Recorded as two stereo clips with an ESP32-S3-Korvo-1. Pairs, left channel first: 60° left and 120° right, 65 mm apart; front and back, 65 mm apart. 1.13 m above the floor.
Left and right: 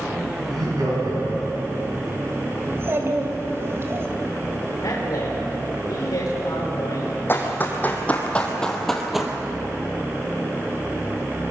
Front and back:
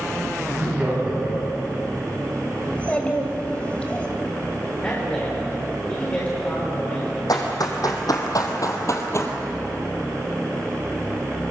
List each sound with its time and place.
0.5 s laughter: 110° right, 10 m
2.6 s a child speaking: 70° right, 3 m
4.8 s a man speaking: 70° left, 3.5 m
7.3 s running footsteps: 5° left, 3.5 m; by 9.3 s 40° right, 2 m